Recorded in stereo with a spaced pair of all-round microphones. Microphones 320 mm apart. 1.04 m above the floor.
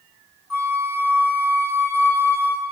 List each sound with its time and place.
0.5 s a flute: 60° left (ahead or behind), 0.9 m